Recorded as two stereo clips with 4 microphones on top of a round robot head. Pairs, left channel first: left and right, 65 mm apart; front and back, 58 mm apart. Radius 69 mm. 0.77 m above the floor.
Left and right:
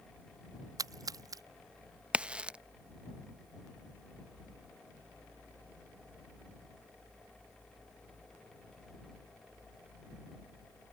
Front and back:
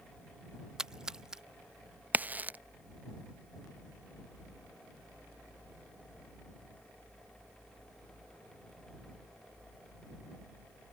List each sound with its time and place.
0.8 s a splash: 100° right
2.1 s a crack: 150° right